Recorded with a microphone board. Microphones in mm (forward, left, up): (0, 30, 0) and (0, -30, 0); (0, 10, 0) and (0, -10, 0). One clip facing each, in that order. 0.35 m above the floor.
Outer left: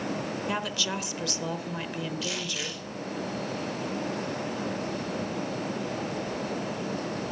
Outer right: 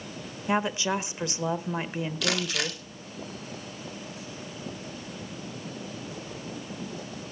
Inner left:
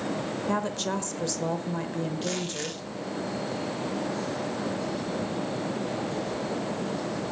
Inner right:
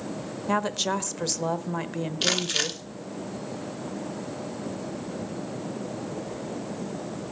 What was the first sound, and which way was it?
A woman speaking, 25° right (ahead or behind).